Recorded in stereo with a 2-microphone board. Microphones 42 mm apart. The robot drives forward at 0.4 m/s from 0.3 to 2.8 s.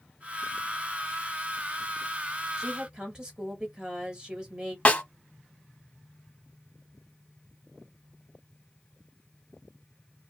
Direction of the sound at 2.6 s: 20° right (ahead or behind).